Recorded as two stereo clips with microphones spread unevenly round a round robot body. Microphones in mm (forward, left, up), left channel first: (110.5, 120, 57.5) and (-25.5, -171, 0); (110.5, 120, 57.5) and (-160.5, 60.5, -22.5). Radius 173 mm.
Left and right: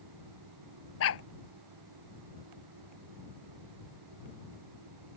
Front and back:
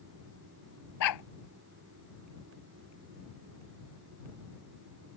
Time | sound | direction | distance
1.0 | a dog barking | 15° left | ?